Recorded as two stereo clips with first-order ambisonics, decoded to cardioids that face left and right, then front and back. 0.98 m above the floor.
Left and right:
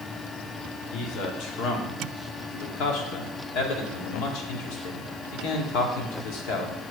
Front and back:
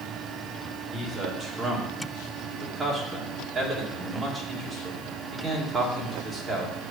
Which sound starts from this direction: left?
A man speaking, at 0.9 s.